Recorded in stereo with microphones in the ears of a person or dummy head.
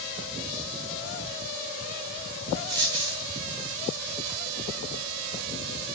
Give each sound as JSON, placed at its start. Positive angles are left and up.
{"t": 2.7, "sound": "a dropped coin", "side_deg": -20, "distance_m": 4.5}